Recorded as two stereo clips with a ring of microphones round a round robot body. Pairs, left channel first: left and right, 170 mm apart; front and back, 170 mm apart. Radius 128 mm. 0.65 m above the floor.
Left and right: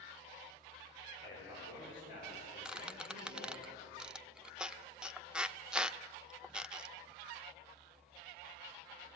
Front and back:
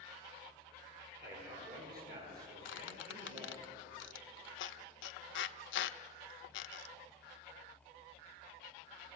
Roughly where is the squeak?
Ahead.